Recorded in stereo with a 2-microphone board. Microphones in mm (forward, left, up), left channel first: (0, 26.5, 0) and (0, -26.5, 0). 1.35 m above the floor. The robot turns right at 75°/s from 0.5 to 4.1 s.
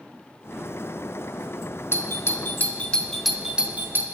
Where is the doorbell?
50° left (ahead or behind), 0.7 m; by 4.2 s 45° right (ahead or behind), 0.7 m.